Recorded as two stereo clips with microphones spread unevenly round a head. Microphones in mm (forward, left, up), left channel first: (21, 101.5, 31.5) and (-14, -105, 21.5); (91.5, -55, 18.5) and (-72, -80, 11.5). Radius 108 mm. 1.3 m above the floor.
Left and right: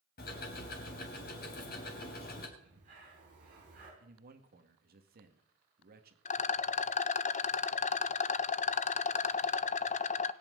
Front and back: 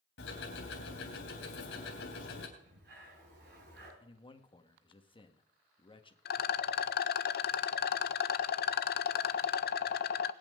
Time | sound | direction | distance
0.2 | ticking | 35° left | 3.5 m
2.6 | breathing | 155° right | 7 m
4.0 | a man speaking | 50° right | 1.8 m
6.2 | a rattle | 25° left | 0.5 m